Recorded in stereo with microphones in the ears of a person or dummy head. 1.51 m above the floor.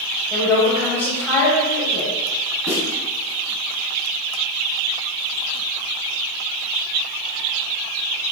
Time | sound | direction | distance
0.3 | a woman speaking | centre (ahead or behind) | 7.5 m
2.7 | a snare drum | centre (ahead or behind) | 7 m